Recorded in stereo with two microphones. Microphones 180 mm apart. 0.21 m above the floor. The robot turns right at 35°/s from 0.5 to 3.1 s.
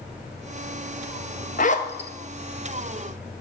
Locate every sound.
1.6 s a zipper: 45° left (ahead or behind), 1.3 m; by 2.1 s 30° left (ahead or behind), 1.3 m